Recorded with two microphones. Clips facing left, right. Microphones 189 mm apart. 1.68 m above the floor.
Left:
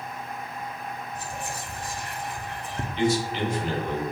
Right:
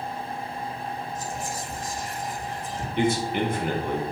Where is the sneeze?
No sneeze in this recording.